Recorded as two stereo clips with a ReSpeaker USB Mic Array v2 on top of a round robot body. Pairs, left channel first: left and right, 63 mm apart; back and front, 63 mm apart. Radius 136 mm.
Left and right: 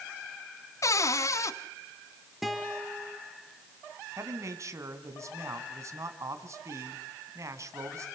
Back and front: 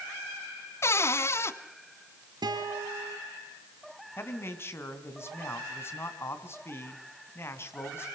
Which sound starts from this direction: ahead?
A guitar, at 2.4 s.